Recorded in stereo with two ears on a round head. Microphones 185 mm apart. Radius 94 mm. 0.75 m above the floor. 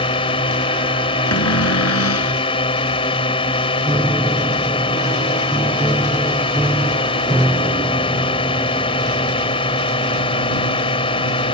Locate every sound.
0.0 s a drone: 25° left (ahead or behind)
1.3 s a cupboard door: 80° left
3.9 s a piano: 5° right (ahead or behind)